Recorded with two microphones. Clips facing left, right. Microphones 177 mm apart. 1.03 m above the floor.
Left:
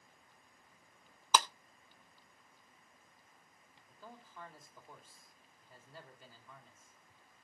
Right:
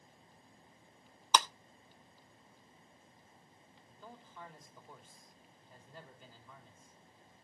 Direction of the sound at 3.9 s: 5° left (ahead or behind).